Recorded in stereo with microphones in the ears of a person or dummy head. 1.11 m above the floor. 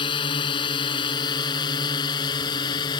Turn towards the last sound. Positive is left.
turn(degrees=25)  # may be behind; listen again after turning